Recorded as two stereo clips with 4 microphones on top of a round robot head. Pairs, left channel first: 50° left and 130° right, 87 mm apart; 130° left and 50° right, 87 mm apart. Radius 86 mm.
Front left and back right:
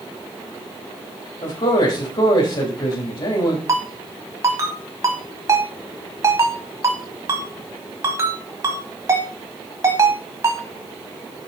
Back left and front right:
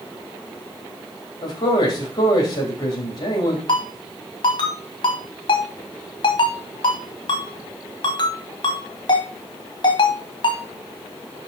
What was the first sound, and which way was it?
A man speaking, 85° left.